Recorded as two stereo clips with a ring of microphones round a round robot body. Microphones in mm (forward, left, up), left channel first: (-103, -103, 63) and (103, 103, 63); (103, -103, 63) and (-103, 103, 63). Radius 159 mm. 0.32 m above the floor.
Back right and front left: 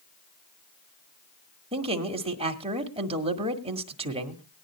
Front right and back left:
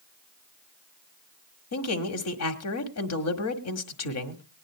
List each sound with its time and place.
1.7 s a man speaking: 25° right, 1.8 m